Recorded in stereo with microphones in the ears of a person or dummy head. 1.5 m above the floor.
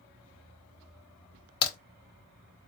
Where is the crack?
25° left (ahead or behind), 0.8 m.